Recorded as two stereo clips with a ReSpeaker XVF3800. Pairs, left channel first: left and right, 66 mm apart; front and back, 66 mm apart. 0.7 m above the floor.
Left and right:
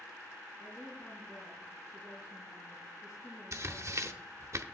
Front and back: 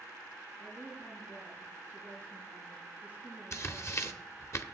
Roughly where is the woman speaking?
Ahead left.